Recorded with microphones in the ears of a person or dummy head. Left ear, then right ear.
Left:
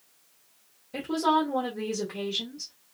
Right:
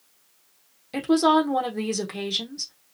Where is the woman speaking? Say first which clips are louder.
Right 5 dB; 65° right (ahead or behind), 0.8 m.